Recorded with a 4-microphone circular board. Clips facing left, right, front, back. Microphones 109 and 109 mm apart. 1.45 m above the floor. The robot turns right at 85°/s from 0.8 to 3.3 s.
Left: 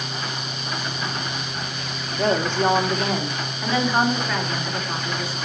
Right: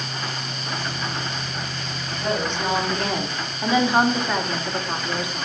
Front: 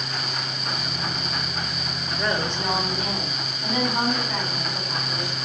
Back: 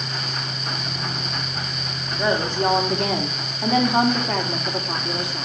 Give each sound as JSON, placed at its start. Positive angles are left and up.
{"t": 2.2, "sound": "a woman speaking", "azimuth_deg": 105, "distance_m": 2.5}